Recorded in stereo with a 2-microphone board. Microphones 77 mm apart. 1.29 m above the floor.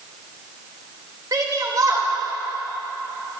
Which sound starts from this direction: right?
A shout, at 1.3 s.